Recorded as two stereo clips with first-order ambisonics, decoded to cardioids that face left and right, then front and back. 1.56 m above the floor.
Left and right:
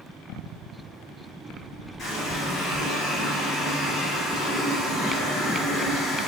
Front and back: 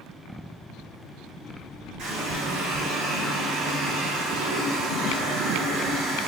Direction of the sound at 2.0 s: 150° left.